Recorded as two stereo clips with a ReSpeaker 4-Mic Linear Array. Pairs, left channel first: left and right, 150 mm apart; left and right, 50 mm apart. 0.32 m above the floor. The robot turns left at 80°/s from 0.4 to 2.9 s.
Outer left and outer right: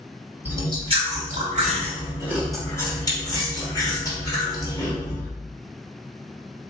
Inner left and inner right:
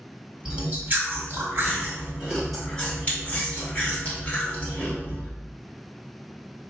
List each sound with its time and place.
0.5 s chewing: 15° right, 1.6 m; by 5.3 s 150° left, 1.6 m